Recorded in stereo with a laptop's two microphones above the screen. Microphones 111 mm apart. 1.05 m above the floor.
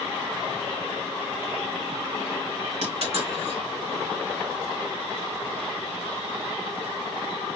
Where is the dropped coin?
70° right (ahead or behind), 2 m.